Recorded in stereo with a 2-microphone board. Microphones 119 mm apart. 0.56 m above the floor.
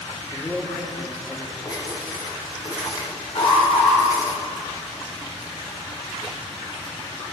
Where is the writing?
40° left (ahead or behind), 2.0 m.